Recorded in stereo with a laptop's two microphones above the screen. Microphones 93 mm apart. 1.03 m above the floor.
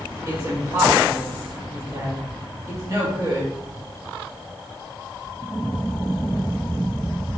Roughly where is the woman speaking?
Right.